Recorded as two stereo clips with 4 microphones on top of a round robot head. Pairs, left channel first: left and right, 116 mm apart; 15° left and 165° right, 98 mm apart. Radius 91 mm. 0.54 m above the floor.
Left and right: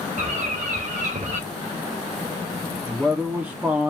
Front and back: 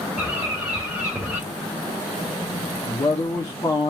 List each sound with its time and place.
0.2 s a bird: 90° right, 1.4 m
2.9 s a man speaking: 20° right, 1.1 m